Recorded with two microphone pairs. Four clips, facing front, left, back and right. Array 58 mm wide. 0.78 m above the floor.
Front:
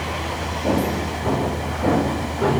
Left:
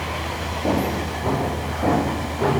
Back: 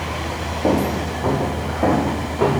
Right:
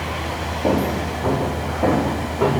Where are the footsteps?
155° right, 4 m; by 2.5 s 150° right, 6 m.